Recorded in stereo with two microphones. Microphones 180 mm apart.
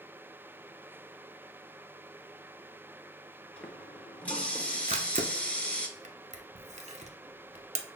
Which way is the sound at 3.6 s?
5° left (ahead or behind).